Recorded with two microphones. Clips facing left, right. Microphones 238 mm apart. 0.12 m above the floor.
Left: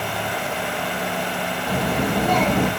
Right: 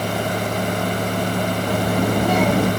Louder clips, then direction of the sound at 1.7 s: Right 1 dB; 10° right (ahead or behind).